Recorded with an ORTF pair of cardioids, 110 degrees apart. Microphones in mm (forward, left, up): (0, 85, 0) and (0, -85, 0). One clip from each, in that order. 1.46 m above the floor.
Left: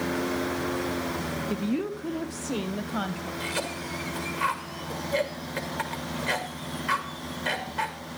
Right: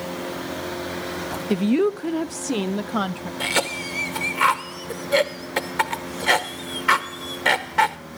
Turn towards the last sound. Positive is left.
turn(degrees=-55)